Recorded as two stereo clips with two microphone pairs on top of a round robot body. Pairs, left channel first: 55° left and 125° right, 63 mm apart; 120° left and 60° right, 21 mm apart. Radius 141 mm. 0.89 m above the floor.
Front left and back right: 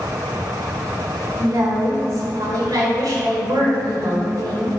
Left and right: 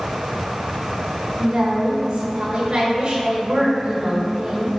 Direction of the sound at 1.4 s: 100° right.